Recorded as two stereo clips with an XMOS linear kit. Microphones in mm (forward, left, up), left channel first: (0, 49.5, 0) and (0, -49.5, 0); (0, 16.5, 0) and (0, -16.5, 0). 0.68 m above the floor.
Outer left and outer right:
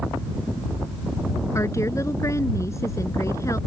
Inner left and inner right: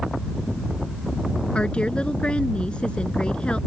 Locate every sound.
1.6 s a woman speaking: 30° left (ahead or behind)